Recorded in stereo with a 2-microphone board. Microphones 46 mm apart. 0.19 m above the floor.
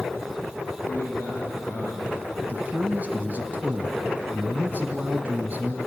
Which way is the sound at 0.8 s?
60° left (ahead or behind).